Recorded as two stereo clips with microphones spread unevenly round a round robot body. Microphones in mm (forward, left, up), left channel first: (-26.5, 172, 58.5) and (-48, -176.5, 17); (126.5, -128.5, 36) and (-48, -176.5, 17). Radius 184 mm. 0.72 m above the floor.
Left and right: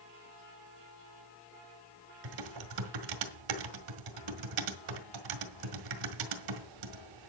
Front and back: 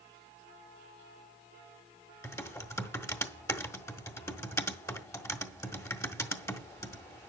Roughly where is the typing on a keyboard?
Ahead right.